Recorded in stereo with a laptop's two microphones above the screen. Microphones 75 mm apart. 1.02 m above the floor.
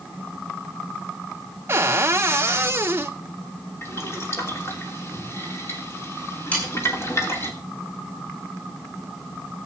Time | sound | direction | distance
1.7 | a cupboard door | 35° right (ahead or behind) | 0.7 m
3.8 | boiling | 35° left (ahead or behind) | 3 m
6.5 | sawing | 20° left (ahead or behind) | 8.5 m